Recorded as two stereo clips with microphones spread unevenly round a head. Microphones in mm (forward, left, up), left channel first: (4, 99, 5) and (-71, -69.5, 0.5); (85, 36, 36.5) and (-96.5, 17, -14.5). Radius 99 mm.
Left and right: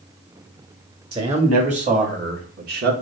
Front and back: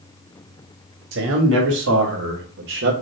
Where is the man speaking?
175° right, 2 m; by 3.0 s 145° right, 1.4 m.